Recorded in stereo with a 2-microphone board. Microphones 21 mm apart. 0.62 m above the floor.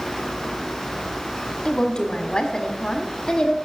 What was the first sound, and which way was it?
A woman speaking, 40° left (ahead or behind).